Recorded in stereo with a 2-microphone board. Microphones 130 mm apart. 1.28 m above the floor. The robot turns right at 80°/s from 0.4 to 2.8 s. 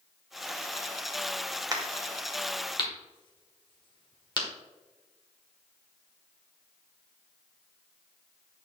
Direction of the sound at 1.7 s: 30° right (ahead or behind).